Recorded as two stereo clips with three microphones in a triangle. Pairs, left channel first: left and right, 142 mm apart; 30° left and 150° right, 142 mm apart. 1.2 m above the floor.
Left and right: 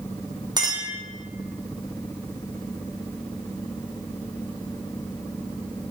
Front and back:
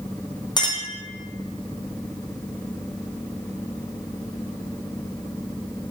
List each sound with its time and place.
0.6 s a clink: 30° right, 0.8 m